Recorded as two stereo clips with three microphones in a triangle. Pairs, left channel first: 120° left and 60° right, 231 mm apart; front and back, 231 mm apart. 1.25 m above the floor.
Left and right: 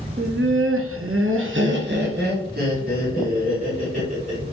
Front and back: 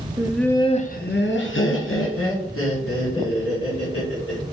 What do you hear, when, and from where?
0.2 s laughter: 100° right, 0.5 m; by 4.4 s 5° right, 2.5 m